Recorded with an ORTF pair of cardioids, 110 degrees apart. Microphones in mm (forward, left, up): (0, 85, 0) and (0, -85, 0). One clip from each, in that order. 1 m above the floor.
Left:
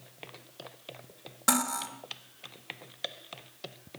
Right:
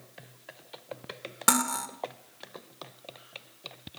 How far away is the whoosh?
No whoosh in this recording.